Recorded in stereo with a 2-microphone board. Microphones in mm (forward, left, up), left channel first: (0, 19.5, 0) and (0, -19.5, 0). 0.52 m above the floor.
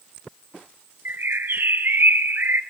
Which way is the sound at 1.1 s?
60° right (ahead or behind).